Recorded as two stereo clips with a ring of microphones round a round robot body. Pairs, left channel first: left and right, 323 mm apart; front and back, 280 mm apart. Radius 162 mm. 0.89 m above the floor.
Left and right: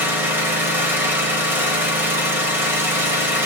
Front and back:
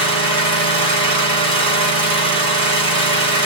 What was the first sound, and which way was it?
An engine running, 175° right.